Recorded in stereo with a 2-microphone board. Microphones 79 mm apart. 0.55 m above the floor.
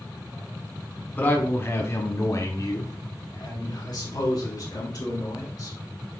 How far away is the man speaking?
About 1.2 m.